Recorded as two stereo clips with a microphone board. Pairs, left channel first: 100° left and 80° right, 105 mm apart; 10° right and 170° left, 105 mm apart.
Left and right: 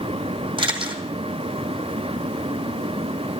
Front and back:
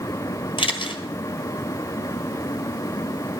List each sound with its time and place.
0.6 s a camera shutter: 45° right, 2 m